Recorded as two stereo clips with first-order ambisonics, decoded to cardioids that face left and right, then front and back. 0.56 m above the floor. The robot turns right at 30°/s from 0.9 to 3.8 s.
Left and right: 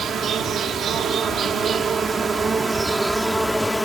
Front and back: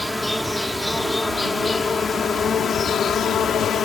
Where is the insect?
80° right; by 3.9 s 5° left.